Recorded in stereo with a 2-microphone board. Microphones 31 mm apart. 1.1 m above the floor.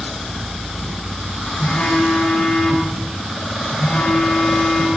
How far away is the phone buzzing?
About 9.5 m.